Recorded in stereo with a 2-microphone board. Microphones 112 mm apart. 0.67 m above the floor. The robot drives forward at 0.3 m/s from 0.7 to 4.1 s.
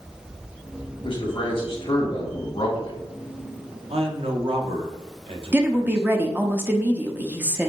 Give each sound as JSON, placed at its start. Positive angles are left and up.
{"t": 1.0, "sound": "a man speaking", "side_deg": 50, "distance_m": 1.8}
{"t": 3.9, "sound": "a man speaking", "side_deg": -60, "distance_m": 0.9}
{"t": 5.5, "sound": "a woman speaking", "side_deg": -20, "distance_m": 0.6}